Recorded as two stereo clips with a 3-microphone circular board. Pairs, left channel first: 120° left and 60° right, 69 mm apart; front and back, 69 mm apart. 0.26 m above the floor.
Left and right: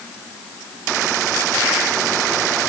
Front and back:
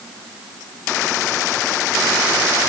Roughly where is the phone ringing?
I don't hear a phone ringing.